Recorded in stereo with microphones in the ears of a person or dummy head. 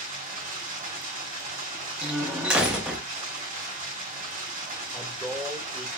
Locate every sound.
0.0 s running water: 45° right (ahead or behind), 4.5 m
2.0 s a door slam: 5° right (ahead or behind), 0.9 m
4.9 s a man speaking: 10° right (ahead or behind), 1.3 m